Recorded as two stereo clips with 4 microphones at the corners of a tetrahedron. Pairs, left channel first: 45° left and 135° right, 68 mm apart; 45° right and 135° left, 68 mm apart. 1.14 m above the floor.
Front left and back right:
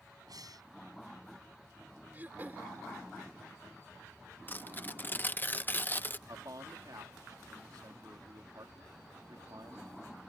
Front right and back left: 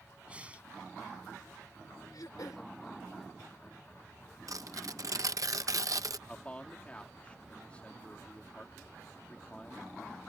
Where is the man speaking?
115° right.